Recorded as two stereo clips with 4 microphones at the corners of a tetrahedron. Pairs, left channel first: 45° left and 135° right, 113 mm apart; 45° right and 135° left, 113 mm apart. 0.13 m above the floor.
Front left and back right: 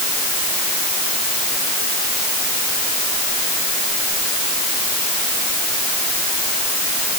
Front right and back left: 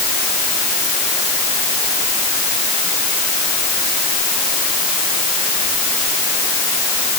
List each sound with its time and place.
Only background noise.